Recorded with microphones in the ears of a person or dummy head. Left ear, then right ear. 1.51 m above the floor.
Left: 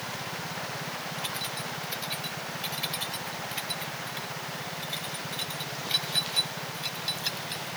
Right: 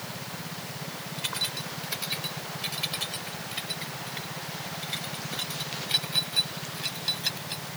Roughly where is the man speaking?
I don't hear a man speaking.